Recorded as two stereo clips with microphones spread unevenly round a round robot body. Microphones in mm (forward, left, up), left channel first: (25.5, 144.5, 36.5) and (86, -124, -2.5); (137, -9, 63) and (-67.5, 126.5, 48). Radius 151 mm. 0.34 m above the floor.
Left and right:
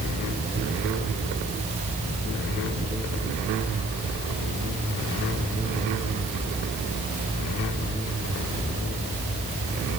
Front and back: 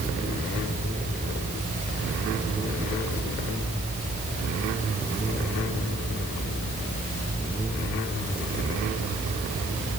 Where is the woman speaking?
No woman speaking in this recording.